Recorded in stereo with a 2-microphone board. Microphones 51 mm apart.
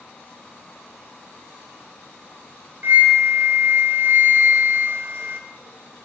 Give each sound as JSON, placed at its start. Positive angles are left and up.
{"t": 2.8, "sound": "a flute", "side_deg": -45, "distance_m": 0.5}